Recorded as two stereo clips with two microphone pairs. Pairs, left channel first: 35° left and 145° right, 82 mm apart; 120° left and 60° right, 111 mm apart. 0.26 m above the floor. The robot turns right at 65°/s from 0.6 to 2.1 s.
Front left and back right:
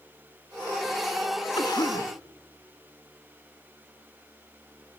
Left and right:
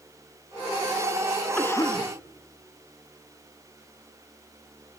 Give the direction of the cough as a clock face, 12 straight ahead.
10 o'clock.